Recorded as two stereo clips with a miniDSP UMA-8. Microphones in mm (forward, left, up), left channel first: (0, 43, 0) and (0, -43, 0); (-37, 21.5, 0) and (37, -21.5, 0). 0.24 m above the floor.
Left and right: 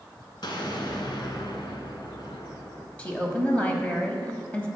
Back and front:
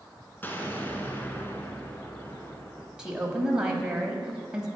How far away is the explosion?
About 1.1 m.